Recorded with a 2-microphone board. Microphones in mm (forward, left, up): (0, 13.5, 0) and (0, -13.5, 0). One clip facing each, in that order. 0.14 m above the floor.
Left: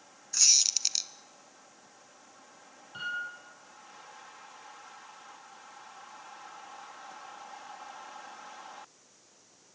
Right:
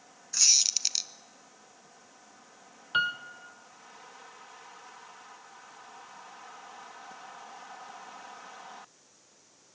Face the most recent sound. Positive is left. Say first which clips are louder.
# right 7 dB
turn(degrees=-70)  # may be behind; listen again after turning